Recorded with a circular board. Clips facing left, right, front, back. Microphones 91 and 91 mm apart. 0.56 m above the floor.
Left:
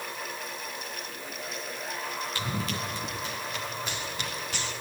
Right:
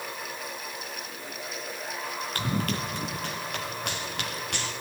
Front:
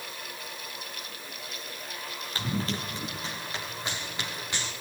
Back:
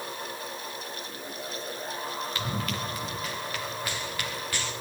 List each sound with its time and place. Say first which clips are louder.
2.4 s running footsteps: right 6 dB, front 5 dB; 50° right, 3 m; by 4.7 s 70° right, 6 m